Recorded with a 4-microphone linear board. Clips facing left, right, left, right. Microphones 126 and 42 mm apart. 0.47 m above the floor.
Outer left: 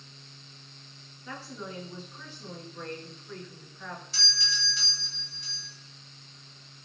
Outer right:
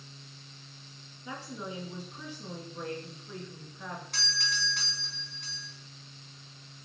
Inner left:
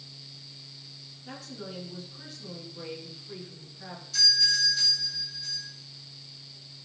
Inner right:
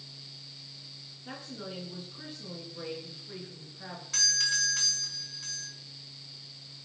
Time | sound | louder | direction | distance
1.2 | a woman speaking | outer right 1 dB, even | 15° right (ahead or behind) | 7 m
4.1 | a doorbell | outer right 2 dB, inner left 4 dB | 60° right (ahead or behind) | 6 m